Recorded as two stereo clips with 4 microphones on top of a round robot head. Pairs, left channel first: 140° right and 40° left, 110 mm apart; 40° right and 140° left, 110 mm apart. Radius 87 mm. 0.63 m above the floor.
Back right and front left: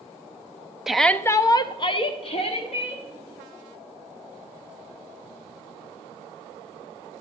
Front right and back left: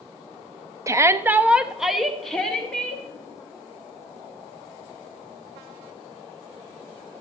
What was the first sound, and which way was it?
A shout, 120° left.